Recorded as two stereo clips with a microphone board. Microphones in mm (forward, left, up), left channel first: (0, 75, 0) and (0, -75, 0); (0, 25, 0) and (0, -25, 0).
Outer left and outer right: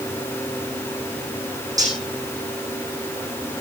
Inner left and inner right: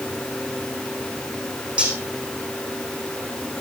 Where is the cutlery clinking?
25° right (ahead or behind), 5 m.